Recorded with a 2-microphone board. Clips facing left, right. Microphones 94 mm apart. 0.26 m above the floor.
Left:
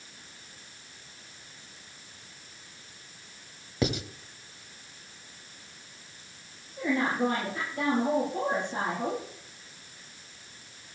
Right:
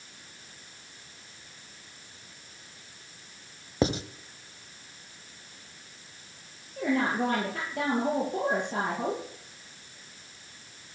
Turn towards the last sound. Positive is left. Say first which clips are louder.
# even
turn(degrees=-75)  # may be behind; listen again after turning